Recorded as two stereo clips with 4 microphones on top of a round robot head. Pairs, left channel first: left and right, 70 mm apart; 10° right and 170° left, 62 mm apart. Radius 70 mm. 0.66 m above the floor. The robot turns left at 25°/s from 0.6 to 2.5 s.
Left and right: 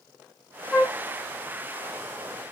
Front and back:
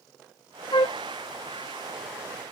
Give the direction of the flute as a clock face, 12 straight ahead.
12 o'clock.